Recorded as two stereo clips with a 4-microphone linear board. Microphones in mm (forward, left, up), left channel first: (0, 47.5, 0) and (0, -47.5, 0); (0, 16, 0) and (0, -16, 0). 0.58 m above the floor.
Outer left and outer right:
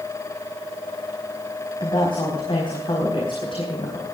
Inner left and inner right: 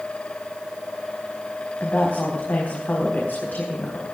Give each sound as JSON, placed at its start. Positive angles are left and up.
{"t": 1.8, "sound": "a woman speaking", "side_deg": 55, "distance_m": 4.5}